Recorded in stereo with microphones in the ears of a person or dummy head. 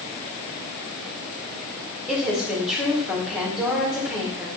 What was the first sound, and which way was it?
A woman speaking, centre (ahead or behind).